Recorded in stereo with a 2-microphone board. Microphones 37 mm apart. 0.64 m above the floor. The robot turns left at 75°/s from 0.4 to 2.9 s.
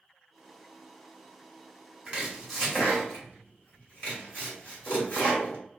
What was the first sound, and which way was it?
Chopping, 30° right (ahead or behind).